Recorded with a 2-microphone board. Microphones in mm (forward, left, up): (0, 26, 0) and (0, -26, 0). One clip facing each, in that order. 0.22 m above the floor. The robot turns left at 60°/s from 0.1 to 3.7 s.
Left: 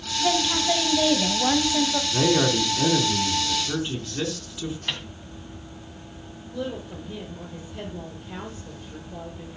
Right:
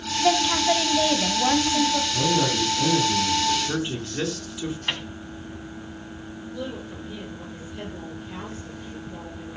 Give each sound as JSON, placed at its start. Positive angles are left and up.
{"t": 0.2, "sound": "a woman speaking", "side_deg": -25, "distance_m": 1.2}
{"t": 2.1, "sound": "a man speaking", "azimuth_deg": 85, "distance_m": 3.0}
{"t": 4.9, "sound": "a microwave", "side_deg": -20, "distance_m": 1.5}
{"t": 6.5, "sound": "a woman speaking", "side_deg": 20, "distance_m": 7.5}